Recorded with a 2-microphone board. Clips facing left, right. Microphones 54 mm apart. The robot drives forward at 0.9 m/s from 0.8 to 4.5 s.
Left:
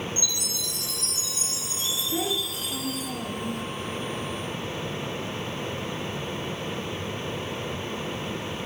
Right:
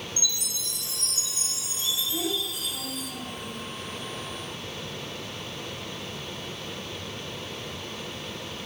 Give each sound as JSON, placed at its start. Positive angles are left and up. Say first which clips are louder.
{"t": 0.2, "sound": "a chime", "louder": "left 2 dB", "side_deg": 80, "distance_m": 3.0}
{"t": 2.1, "sound": "a child speaking", "louder": "left 5 dB", "side_deg": 45, "distance_m": 2.0}